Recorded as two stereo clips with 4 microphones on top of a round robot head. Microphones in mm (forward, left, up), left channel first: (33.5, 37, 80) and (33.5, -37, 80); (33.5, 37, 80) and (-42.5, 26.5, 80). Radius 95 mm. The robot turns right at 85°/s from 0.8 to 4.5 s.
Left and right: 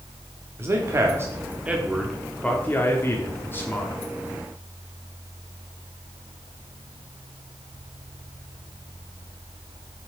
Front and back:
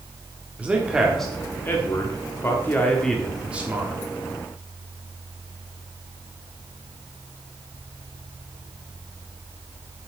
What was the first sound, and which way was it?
A man speaking, 110° right.